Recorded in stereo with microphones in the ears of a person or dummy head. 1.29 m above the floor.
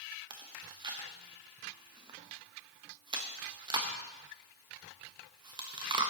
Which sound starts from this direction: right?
Chewing, at 0.3 s.